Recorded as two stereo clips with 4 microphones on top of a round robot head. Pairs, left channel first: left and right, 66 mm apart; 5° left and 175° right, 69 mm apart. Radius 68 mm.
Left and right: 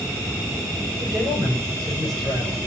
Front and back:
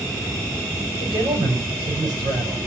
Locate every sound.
0.9 s a man speaking: 175° right, 6 m